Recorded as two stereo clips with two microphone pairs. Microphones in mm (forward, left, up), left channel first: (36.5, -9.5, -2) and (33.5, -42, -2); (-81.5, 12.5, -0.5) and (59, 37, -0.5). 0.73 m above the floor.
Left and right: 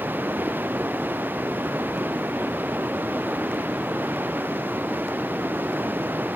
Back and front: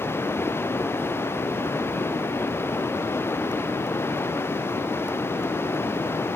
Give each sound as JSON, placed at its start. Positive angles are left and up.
{"t": 0.0, "sound": "running water", "azimuth_deg": -95}